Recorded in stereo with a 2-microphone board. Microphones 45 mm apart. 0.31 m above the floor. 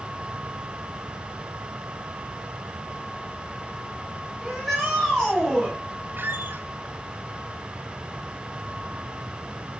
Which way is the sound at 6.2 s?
50° right (ahead or behind).